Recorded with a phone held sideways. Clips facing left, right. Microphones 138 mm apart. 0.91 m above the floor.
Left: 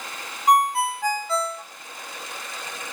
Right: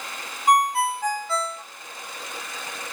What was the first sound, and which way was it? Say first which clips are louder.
A ringtone: left 1 dB; centre (ahead or behind).